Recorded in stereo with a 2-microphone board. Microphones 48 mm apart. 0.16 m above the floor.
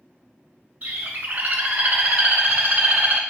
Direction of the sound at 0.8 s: 45° right (ahead or behind).